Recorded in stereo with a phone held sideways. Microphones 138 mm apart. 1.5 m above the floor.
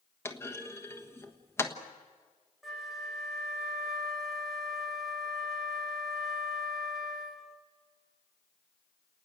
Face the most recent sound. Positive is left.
turn(degrees=0)  # may be behind; listen again after turning